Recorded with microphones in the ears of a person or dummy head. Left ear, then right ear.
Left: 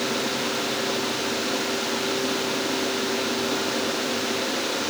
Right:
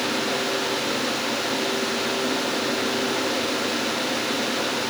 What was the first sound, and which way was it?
Only background noise.